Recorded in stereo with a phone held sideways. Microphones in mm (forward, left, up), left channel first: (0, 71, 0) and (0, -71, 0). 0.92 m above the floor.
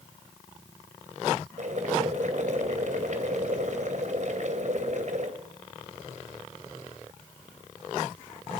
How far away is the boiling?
About 2.5 m.